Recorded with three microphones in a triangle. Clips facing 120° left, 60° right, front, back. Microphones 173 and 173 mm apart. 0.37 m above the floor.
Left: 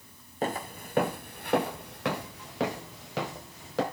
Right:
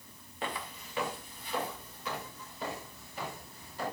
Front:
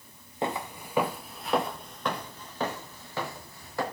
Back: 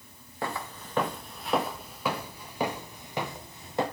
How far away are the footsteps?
About 1.5 m.